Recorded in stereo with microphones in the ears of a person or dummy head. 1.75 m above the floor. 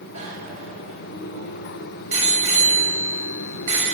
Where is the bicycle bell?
45° right (ahead or behind), 7 m.